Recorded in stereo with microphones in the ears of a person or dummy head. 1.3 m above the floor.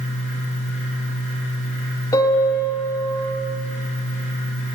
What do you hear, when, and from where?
0.0 s a fan: 40° left (ahead or behind), 4.5 m
2.1 s a piano: 15° left (ahead or behind), 1.8 m